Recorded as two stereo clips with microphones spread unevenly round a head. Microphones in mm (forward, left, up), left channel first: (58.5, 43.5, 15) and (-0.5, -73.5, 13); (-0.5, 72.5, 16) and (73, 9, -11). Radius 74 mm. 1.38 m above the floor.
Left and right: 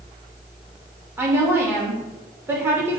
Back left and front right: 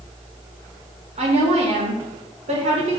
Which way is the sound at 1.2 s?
45° right.